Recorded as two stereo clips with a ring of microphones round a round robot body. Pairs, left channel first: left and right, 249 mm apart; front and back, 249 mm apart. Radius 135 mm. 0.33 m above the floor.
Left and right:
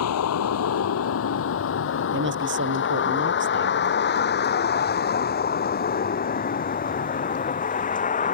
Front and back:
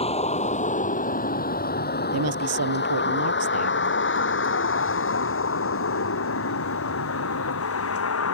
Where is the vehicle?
65° left; by 8.3 s 30° left.